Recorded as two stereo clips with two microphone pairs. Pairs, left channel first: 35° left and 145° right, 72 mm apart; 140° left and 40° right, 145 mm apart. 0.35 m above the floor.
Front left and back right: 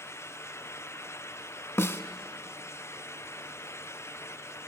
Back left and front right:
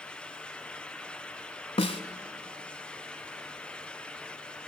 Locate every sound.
1.8 s a snare drum: 90° left, 0.9 m